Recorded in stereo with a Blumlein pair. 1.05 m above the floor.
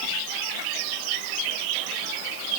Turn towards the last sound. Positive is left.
No sound to turn to.